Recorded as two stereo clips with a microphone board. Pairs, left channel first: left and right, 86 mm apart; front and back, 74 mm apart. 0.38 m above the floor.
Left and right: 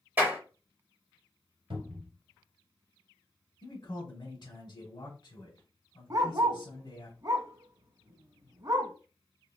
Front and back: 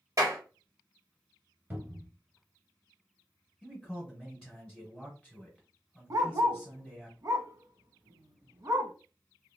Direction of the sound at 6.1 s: 140° right.